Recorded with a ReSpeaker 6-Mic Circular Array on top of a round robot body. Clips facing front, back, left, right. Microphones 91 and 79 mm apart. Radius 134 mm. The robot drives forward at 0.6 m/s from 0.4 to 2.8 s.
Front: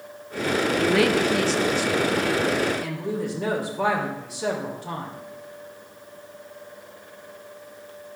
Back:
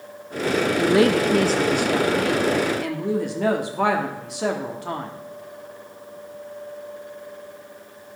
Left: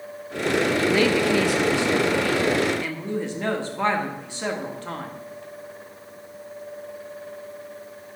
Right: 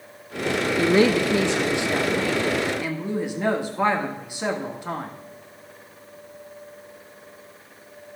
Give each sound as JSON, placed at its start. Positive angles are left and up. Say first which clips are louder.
{"t": 0.8, "sound": "a woman speaking", "louder": "back 3 dB, right 5 dB", "azimuth_deg": -120, "distance_m": 0.7}